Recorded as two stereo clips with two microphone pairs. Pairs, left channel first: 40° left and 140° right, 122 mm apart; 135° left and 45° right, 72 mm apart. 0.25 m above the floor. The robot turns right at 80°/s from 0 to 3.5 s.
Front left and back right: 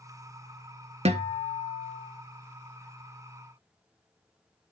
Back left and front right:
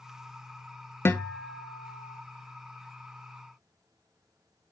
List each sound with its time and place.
1.1 s a guitar: 170° right, 0.7 m; by 2.2 s 80° right, 0.7 m